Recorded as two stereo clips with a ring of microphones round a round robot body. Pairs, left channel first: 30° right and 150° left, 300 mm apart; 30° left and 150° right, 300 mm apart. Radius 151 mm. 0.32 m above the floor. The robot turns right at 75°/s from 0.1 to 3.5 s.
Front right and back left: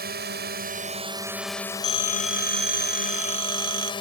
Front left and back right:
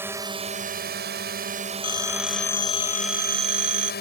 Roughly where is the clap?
No clap in this recording.